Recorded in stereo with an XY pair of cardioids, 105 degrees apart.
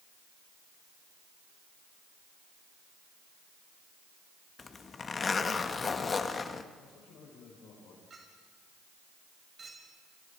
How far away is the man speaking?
About 8 m.